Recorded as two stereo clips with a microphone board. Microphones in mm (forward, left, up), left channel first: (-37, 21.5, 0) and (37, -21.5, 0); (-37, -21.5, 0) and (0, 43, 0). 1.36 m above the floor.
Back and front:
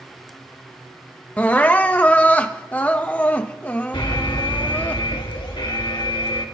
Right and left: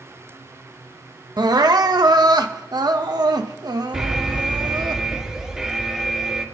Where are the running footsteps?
No running footsteps in this recording.